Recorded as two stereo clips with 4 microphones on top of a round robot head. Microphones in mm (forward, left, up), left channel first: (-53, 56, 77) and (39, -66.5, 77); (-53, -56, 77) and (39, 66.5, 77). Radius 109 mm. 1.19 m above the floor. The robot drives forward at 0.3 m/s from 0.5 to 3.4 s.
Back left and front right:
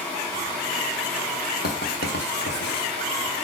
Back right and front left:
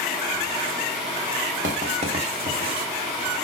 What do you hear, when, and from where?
1.6 s writing: 95° left, 1.4 m; by 2.9 s 110° left, 1.5 m